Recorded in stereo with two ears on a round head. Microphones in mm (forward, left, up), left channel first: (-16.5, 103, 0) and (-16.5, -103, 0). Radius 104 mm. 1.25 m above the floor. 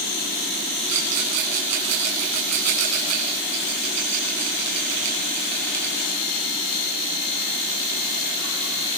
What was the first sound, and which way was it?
A rattle, 90° right.